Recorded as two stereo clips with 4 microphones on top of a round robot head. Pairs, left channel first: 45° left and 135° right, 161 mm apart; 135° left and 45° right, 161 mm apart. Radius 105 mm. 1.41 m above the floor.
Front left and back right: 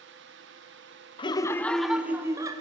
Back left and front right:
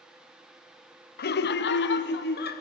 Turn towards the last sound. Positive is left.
turn(degrees=160)